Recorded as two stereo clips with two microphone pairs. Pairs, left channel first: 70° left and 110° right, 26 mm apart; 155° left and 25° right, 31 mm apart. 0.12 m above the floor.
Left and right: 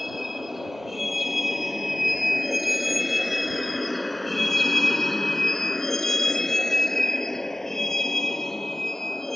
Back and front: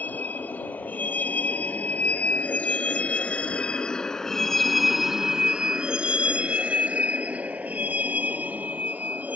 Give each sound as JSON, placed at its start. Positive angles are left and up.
{"t": 0.0, "sound": "a vehicle", "azimuth_deg": 165}